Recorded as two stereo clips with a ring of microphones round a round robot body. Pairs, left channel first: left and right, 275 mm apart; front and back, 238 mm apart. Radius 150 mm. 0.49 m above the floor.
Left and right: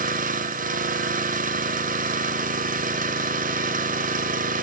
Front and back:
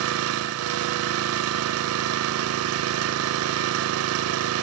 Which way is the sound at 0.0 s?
150° right.